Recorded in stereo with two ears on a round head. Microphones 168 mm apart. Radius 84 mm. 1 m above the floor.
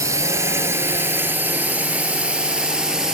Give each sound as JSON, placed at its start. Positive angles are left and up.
{"t": 0.0, "sound": "a drone", "side_deg": -15}